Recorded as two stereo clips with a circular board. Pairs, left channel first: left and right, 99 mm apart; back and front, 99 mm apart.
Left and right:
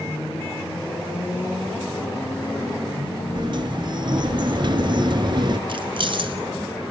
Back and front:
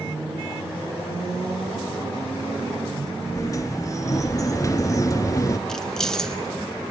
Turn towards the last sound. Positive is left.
turn(degrees=-95)